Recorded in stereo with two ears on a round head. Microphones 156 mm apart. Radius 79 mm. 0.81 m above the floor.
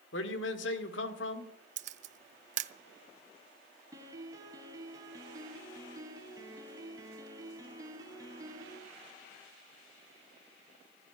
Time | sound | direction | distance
0.1 | a man speaking | 75° left (ahead or behind) | 1.9 m
1.8 | a camera shutter | 40° right (ahead or behind) | 0.7 m
3.9 | a piano | 20° right (ahead or behind) | 2.5 m